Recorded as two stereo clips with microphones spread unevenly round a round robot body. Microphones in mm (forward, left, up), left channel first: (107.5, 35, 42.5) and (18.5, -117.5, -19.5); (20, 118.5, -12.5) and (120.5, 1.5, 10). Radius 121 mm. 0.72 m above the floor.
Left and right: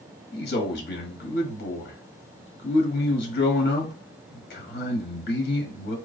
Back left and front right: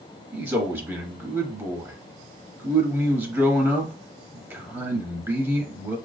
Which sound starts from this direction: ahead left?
A man speaking, at 0.3 s.